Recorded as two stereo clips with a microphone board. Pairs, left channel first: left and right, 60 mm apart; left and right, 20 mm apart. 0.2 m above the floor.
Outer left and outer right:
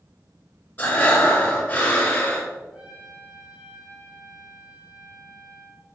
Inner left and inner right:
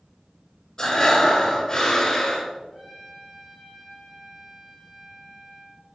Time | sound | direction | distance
0.8 | breathing | 30° left (ahead or behind) | 2 m
2.7 | a trumpet | 20° right (ahead or behind) | 1.7 m